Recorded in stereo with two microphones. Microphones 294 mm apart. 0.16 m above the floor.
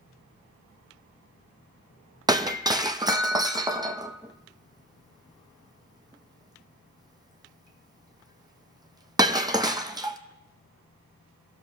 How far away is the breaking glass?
About 0.7 m.